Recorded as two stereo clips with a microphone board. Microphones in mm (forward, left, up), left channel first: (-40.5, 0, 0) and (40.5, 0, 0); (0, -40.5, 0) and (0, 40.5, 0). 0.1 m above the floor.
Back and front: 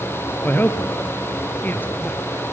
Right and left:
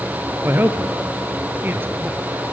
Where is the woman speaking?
130° left, 1.6 m.